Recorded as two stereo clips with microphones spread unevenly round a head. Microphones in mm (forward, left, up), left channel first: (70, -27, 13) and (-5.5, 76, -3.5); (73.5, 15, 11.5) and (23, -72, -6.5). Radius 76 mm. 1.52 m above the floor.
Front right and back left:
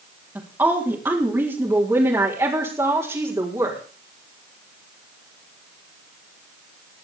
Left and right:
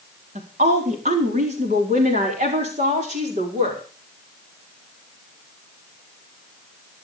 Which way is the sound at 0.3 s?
155° right.